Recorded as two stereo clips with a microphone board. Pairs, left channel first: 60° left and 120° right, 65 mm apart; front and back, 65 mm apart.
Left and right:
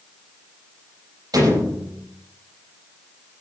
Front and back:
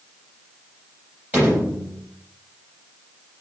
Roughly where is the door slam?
Behind right.